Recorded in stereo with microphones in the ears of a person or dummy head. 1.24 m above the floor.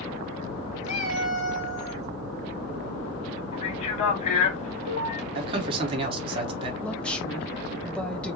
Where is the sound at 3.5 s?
45° left (ahead or behind), 1.1 m.